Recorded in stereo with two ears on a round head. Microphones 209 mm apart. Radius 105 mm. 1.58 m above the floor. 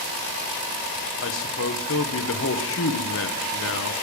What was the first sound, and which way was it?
A man speaking, 55° left (ahead or behind).